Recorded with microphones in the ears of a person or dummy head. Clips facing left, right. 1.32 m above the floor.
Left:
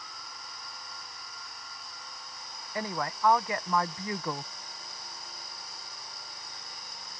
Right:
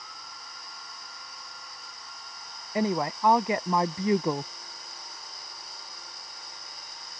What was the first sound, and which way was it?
A woman speaking, 20° right (ahead or behind).